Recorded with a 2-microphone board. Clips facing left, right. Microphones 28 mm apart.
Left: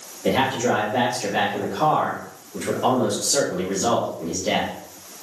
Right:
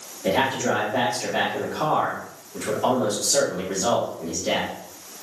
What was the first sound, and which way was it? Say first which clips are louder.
A man speaking: left 1 dB; 10° left (ahead or behind).